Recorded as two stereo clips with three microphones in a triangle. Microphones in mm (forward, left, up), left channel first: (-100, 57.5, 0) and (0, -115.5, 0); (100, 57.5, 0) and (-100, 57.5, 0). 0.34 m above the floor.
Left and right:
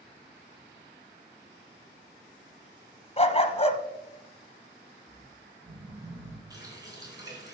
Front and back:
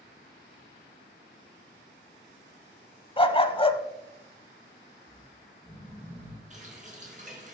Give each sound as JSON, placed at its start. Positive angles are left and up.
{"t": 3.2, "sound": "a dog barking", "azimuth_deg": 65, "distance_m": 0.7}
{"t": 5.1, "sound": "snoring", "azimuth_deg": -70, "distance_m": 4.0}
{"t": 6.5, "sound": "a running tap", "azimuth_deg": -130, "distance_m": 3.0}